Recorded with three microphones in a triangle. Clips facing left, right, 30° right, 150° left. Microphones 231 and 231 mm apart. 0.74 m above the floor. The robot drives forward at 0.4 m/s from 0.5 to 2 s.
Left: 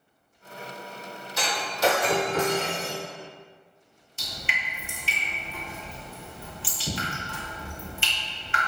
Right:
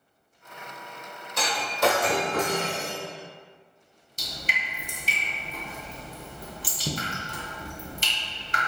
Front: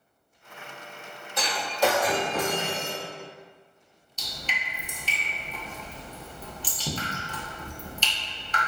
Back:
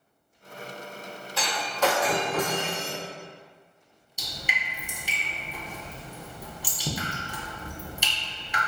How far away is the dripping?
About 0.6 m.